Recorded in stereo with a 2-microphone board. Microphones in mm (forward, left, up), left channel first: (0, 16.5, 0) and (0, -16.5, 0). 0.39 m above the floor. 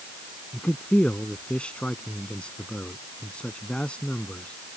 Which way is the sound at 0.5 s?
35° left (ahead or behind).